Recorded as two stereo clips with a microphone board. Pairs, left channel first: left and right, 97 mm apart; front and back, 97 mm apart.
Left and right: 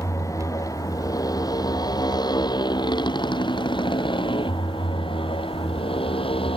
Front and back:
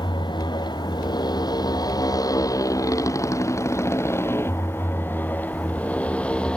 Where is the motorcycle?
35° left; by 6.6 s 80° left.